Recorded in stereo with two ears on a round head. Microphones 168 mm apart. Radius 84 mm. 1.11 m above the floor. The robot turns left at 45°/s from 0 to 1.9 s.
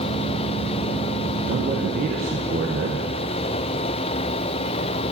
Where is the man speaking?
50° right (ahead or behind), 1.0 m.